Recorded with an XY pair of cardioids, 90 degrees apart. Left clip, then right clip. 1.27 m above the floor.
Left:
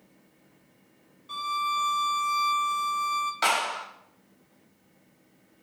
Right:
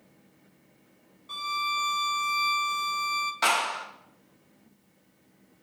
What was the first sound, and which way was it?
A violin, 5° right.